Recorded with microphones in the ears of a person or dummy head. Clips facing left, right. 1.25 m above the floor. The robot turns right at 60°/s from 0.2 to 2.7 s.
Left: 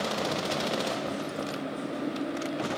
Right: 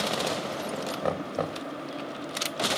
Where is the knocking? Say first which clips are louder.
Right 3 dB; 105° right; by 1.6 s 70° right.